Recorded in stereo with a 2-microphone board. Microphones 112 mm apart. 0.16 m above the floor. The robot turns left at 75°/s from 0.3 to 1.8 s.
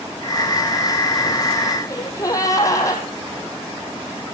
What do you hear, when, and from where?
1.9 s a gasp: 30° left (ahead or behind), 4.5 m